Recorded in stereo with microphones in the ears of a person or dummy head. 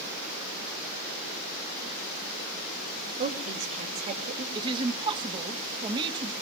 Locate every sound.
3.2 s a woman speaking: 40° right (ahead or behind), 3 m
4.5 s a woman speaking: 25° right (ahead or behind), 1.0 m